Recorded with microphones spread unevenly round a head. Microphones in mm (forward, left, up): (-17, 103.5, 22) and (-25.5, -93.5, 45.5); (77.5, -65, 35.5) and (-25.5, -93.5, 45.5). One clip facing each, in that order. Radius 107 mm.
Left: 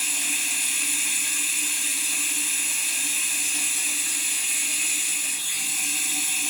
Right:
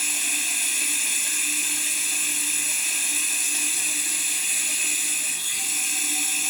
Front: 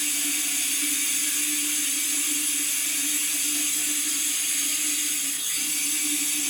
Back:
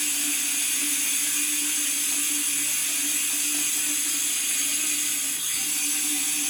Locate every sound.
0.0 s running water: 135° right, 1.2 m